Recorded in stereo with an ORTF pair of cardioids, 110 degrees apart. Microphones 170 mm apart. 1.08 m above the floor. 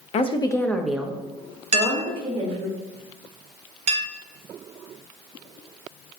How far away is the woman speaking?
About 0.6 m.